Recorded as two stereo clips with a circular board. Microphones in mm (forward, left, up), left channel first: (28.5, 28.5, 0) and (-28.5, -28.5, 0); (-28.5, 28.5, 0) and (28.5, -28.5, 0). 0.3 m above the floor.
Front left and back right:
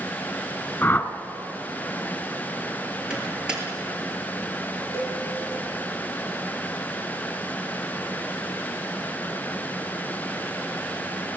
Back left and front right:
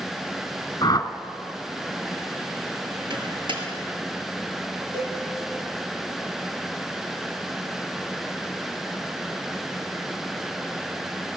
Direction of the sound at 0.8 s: 105° left.